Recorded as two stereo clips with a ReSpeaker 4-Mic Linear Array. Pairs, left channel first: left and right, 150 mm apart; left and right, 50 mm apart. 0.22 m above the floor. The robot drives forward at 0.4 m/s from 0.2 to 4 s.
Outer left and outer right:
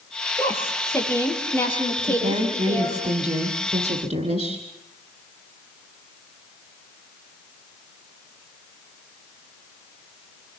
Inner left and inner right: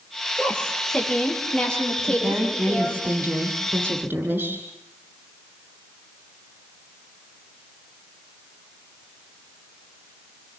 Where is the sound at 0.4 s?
15° left (ahead or behind), 6.5 m.